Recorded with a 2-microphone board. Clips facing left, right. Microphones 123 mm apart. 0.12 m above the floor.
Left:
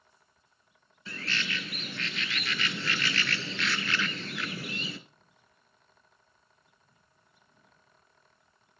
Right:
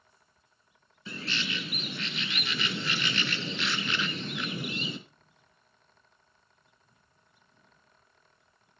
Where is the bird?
20° right (ahead or behind), 0.9 m.